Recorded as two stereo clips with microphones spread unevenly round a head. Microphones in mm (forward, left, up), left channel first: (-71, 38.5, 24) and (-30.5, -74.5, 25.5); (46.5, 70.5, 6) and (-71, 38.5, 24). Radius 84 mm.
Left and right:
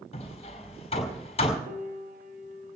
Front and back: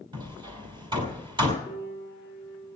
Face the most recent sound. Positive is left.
turn(degrees=-60)